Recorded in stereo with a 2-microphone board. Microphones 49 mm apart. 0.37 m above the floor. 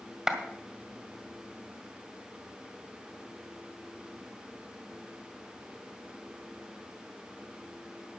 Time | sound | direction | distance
0.3 | a clap | 15° right (ahead or behind) | 1.9 m